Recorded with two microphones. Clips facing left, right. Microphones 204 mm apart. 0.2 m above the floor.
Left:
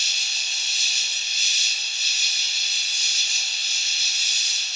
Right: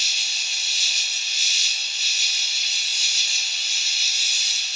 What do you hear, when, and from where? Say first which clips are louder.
0.0 s an insect: even; 70° right (ahead or behind), 2 m